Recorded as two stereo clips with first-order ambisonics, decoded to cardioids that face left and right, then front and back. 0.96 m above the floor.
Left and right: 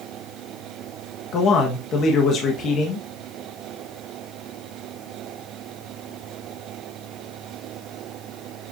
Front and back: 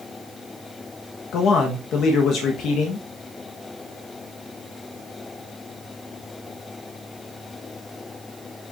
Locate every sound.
1.3 s a man speaking: 40° left, 1.2 m